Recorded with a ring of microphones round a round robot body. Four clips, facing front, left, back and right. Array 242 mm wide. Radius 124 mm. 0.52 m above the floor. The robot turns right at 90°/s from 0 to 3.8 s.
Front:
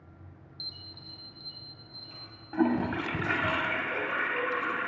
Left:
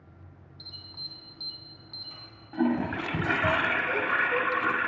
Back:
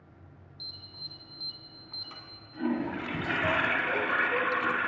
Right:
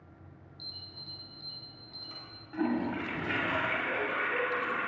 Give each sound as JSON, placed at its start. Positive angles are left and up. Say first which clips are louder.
{"t": 0.6, "sound": "an alarm", "louder": "left 3 dB, front 1 dB", "azimuth_deg": 45, "distance_m": 1.8}
{"t": 2.5, "sound": "a toilet flushing", "louder": "left 4 dB, front 4 dB", "azimuth_deg": 15, "distance_m": 0.9}